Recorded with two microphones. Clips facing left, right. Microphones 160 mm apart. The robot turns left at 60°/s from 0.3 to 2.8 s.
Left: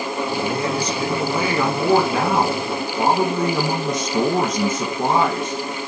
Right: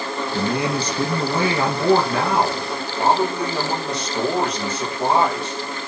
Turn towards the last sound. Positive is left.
turn(degrees=130)